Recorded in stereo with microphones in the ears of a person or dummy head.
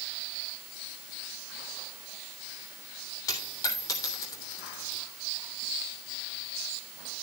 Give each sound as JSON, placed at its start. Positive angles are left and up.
{"t": 3.3, "sound": "a dropped coin", "side_deg": 25, "distance_m": 3.0}